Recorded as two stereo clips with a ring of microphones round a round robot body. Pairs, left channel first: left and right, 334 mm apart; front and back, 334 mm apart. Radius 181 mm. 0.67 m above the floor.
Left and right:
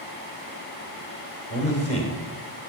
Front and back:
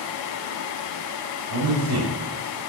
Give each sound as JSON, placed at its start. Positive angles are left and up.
{"t": 1.5, "sound": "a man speaking", "azimuth_deg": 160, "distance_m": 3.0}